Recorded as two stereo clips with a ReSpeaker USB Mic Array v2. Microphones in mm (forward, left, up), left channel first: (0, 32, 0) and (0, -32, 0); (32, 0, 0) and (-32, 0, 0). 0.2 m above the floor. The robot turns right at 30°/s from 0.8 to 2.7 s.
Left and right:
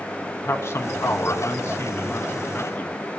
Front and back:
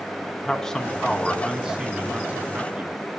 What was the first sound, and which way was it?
A man speaking, 80° left.